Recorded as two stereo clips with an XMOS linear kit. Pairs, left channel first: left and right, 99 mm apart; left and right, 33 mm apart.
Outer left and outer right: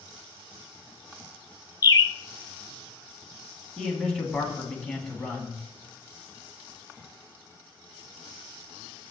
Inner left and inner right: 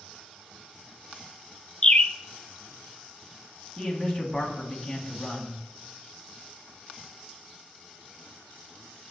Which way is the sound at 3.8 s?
5° left (ahead or behind).